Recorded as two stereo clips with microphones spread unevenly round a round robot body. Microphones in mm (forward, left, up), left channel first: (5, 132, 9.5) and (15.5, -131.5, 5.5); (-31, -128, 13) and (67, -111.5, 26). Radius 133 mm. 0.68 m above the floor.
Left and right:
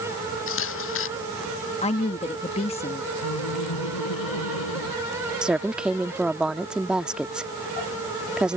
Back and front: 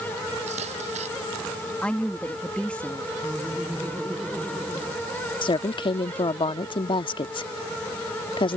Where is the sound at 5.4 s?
175° right.